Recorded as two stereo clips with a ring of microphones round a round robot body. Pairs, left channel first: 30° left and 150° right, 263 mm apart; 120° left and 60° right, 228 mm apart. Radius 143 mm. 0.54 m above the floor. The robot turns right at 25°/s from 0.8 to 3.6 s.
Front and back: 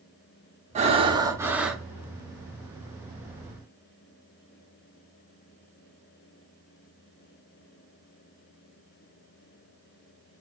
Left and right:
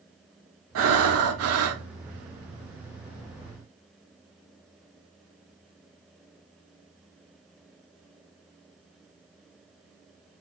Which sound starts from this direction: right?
Breathing, at 0.8 s.